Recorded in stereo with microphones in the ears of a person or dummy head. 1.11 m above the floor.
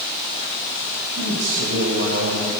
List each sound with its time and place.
1.2 s a man speaking: 70° right (ahead or behind), 5 m; by 2.5 s 50° right (ahead or behind), 4.5 m